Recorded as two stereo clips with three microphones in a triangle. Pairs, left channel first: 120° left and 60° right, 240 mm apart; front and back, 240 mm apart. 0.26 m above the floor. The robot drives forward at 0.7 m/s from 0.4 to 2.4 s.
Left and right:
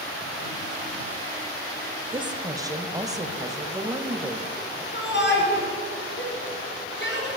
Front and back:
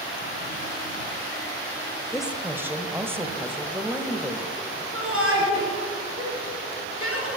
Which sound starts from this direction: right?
A woman speaking, at 2.1 s.